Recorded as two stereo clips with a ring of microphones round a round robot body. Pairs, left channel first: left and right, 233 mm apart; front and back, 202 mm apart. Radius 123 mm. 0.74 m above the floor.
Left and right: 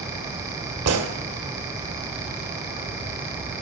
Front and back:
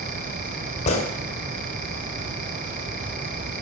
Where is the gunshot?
65° right, 1.8 m.